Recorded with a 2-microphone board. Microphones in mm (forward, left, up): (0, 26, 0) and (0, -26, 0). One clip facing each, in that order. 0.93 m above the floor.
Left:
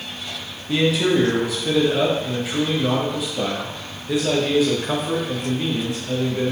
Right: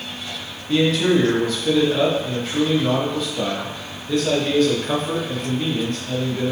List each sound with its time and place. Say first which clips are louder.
0.7 s a man speaking: right 1 dB; 5° left (ahead or behind), 0.6 m